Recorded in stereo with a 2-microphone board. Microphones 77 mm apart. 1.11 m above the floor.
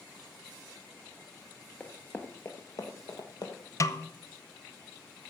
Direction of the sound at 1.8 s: 15° left (ahead or behind).